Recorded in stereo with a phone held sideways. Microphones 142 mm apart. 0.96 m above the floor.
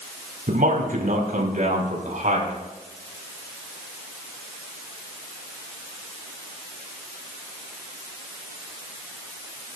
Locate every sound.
0.5 s a man speaking: 75° right (ahead or behind), 6.5 m; by 2.5 s 65° right (ahead or behind), 7.5 m